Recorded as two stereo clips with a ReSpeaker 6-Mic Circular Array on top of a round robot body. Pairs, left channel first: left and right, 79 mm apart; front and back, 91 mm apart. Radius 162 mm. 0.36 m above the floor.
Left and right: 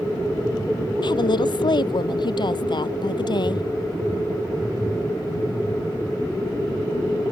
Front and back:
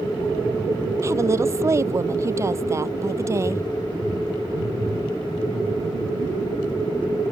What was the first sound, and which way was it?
A woman speaking, 120° left.